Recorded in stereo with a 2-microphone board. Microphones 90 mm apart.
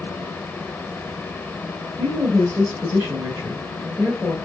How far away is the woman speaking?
About 1.5 m.